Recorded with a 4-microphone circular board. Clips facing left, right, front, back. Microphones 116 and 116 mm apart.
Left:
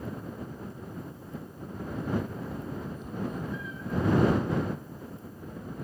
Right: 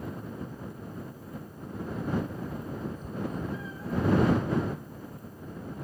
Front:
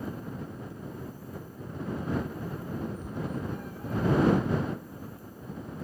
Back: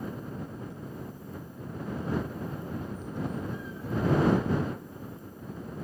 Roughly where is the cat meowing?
Ahead right.